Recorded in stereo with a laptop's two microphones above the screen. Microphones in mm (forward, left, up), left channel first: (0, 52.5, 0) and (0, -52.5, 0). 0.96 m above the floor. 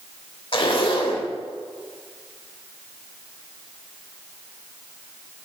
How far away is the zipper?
About 1.1 m.